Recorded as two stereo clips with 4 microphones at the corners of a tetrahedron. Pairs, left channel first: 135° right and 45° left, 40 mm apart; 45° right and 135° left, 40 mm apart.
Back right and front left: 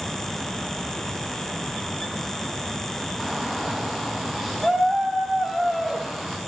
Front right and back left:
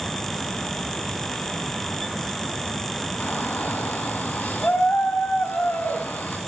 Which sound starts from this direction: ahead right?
A shout, at 3.2 s.